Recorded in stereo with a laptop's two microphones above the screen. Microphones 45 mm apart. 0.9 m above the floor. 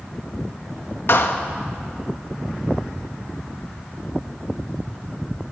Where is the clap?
60° left (ahead or behind), 1.0 m.